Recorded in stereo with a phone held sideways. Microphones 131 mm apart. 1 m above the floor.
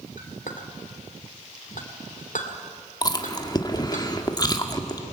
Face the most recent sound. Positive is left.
turn(degrees=30)  # may be behind; listen again after turning